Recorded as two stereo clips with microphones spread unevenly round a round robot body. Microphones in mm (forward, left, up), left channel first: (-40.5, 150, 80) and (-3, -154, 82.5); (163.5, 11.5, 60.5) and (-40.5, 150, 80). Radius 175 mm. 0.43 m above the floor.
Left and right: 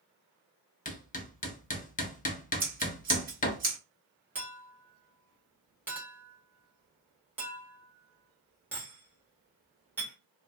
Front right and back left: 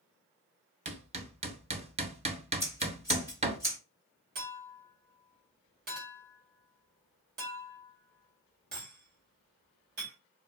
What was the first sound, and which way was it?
Hammering, 110° left.